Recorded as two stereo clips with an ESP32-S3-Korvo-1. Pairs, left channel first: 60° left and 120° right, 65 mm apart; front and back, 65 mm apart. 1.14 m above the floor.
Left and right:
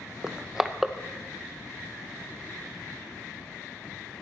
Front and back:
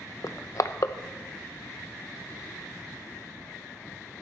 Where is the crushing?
35° right, 0.6 m.